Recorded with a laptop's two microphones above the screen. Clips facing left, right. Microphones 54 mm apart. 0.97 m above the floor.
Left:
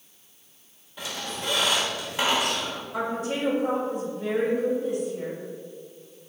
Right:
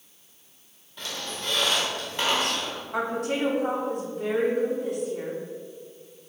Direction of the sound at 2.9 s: 70° right (ahead or behind).